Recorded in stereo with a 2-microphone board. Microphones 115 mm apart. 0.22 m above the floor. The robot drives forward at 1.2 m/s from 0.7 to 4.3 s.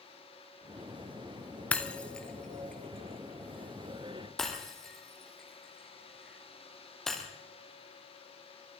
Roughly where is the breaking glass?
Centre.